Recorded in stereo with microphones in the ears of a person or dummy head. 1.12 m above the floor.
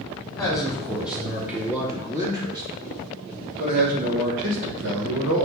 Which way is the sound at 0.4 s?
Centre (ahead or behind).